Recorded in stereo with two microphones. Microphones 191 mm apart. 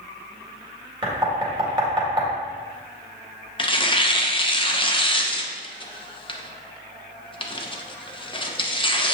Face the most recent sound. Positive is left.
turn(degrees=25)  # may be behind; listen again after turning